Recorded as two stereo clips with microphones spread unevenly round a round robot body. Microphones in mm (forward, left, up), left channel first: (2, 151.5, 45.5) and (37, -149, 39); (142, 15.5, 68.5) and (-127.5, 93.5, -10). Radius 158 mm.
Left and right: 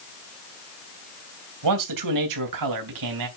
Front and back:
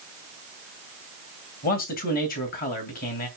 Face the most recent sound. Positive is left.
turn(degrees=-85)